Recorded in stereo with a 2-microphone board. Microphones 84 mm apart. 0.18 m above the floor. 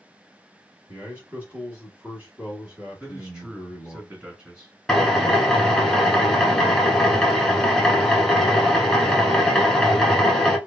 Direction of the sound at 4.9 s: 5° left (ahead or behind).